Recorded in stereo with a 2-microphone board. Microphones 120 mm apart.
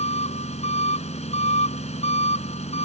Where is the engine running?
65° left (ahead or behind).